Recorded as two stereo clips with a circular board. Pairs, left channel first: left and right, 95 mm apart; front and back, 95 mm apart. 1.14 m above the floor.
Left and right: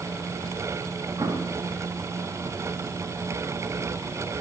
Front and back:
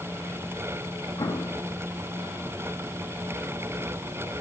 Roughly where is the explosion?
Ahead right.